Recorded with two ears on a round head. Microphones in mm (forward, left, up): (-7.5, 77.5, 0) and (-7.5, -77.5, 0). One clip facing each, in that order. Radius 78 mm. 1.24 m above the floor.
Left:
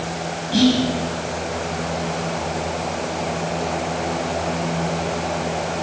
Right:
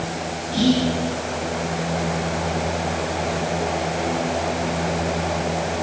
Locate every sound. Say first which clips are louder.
0.5 s whispering: left 2 dB; 70° left (ahead or behind), 7.5 m